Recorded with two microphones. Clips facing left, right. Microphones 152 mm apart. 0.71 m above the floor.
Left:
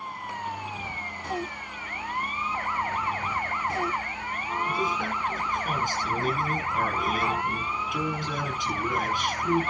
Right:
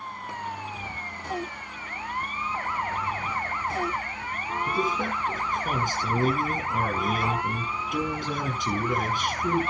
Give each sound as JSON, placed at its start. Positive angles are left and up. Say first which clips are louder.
{"t": 4.7, "sound": "a man speaking", "louder": "right 3 dB", "side_deg": -45, "distance_m": 7.5}